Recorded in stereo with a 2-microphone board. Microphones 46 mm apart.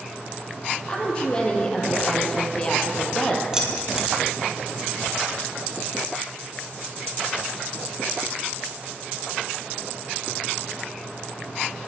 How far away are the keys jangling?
About 2.5 m.